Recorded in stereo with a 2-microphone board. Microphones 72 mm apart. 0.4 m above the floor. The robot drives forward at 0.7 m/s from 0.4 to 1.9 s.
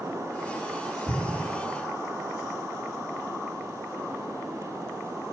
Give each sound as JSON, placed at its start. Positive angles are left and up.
{"t": 1.1, "sound": "an explosion", "side_deg": -5, "distance_m": 2.5}